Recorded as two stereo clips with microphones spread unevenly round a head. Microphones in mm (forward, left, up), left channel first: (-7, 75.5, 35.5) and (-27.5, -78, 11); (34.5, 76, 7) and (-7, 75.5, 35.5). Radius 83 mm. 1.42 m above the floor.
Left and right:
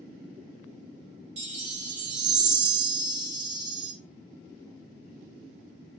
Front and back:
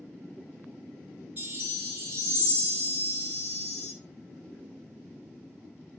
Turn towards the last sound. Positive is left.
turn(degrees=-140)